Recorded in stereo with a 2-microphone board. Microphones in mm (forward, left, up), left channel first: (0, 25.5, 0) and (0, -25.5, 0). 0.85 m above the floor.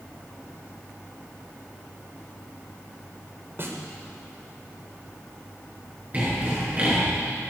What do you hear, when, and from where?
3.6 s a snare drum: 45° right (ahead or behind), 1.8 m
6.1 s sawing: 30° right (ahead or behind), 6.5 m